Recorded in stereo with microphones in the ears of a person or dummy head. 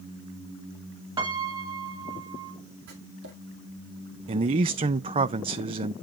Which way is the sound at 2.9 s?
65° right (ahead or behind).